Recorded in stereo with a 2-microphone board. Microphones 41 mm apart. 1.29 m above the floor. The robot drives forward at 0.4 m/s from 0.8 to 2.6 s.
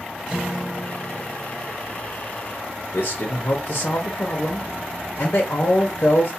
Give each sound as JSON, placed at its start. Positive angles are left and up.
{"t": 0.3, "sound": "a guitar", "side_deg": -10, "distance_m": 0.9}
{"t": 2.9, "sound": "a man speaking", "side_deg": 75, "distance_m": 0.7}